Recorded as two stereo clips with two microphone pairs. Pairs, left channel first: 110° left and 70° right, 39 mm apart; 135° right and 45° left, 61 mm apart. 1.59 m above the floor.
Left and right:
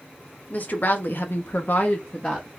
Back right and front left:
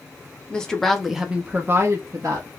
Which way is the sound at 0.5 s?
150° left.